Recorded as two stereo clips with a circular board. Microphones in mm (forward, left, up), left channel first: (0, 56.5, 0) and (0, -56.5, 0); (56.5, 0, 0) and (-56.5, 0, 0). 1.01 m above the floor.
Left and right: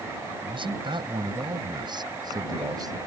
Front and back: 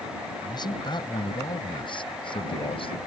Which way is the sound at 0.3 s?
50° right.